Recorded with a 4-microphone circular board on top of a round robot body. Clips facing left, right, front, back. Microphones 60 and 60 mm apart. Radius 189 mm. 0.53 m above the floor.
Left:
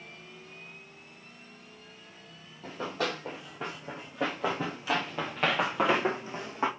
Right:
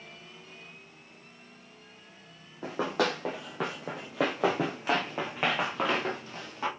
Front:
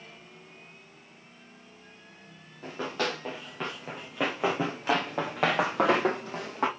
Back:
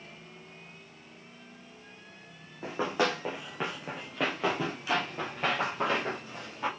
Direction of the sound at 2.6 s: 110° right.